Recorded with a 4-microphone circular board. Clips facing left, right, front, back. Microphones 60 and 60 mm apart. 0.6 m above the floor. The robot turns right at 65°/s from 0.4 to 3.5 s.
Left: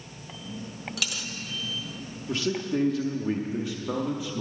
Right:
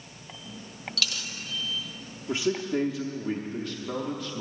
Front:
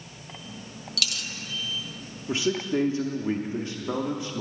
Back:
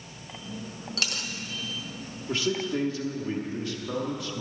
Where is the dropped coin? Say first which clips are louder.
Right 1 dB, even; 155° left, 0.6 m; by 1.3 s 175° left, 0.6 m.